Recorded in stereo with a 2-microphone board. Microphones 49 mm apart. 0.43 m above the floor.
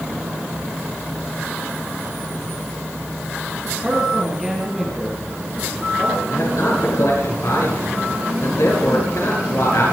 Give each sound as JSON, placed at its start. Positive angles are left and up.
{"t": 3.8, "sound": "a man speaking", "side_deg": -15, "distance_m": 7.5}
{"t": 6.3, "sound": "a man speaking", "side_deg": 75, "distance_m": 7.5}